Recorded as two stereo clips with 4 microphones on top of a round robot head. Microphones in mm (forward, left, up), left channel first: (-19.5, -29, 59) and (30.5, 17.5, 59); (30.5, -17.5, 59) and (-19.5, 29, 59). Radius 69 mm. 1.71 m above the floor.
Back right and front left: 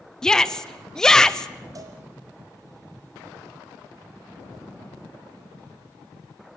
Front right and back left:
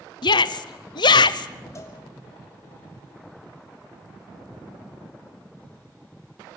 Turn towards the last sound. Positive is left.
turn(degrees=5)